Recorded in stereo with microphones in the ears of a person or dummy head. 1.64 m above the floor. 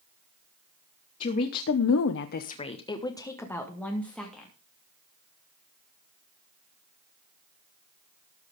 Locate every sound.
1.2 s a woman speaking: 45° left (ahead or behind), 1.3 m; by 4.5 s centre (ahead or behind), 3 m